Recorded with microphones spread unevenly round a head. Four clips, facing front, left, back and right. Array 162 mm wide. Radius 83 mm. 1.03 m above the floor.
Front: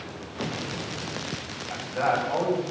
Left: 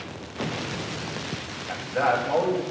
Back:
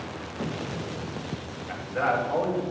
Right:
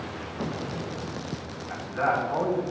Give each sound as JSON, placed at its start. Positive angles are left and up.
{"t": 1.7, "sound": "a man speaking", "azimuth_deg": 110, "distance_m": 6.0}